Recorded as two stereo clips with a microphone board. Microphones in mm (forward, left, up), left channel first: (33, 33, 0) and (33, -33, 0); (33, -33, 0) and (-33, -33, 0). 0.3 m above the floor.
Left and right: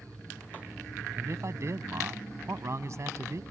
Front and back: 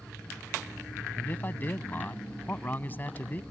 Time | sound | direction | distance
1.2 | a man speaking | 55° right | ?